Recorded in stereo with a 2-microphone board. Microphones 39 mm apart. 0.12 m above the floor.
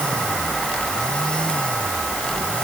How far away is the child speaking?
I don't hear a child speaking.